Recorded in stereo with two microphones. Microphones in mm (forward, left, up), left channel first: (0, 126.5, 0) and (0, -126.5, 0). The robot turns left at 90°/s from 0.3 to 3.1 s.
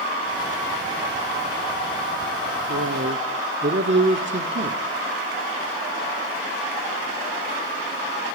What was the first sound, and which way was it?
A man speaking, 85° right.